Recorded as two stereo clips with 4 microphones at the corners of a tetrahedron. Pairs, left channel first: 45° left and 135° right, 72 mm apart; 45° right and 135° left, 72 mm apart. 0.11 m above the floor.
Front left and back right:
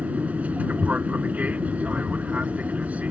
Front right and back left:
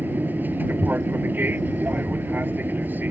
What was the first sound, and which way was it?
An aircraft, 175° left.